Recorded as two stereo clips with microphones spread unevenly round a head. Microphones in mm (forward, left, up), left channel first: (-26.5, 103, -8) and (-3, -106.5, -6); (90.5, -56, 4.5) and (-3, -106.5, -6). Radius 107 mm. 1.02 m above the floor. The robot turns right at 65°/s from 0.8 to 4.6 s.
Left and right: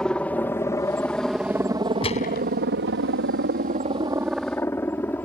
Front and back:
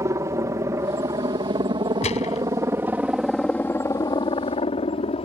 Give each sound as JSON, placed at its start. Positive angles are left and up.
{"t": 0.0, "sound": "a helicopter", "azimuth_deg": 180}
{"t": 2.0, "sound": "a gunshot", "azimuth_deg": 30}